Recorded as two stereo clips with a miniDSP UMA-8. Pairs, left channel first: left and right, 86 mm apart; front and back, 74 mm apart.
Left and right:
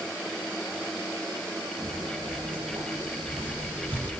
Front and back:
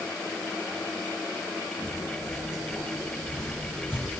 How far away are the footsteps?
About 5.5 m.